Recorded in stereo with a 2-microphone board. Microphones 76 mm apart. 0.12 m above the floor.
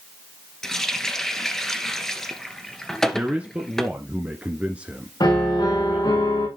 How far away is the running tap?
About 1.5 m.